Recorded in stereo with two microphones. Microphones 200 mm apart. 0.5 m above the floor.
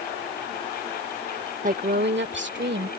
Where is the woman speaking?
40° right (ahead or behind); by 2.9 s 65° right (ahead or behind).